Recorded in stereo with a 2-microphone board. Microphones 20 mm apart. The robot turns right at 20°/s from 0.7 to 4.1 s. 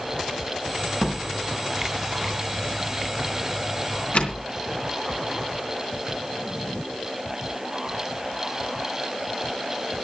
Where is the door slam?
10° left (ahead or behind), 3.5 m; by 4.4 s 70° left (ahead or behind), 3.5 m.